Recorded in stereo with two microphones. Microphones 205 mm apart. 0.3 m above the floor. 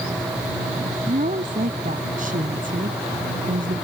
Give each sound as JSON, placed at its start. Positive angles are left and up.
{"t": 1.1, "sound": "a woman speaking", "side_deg": -45}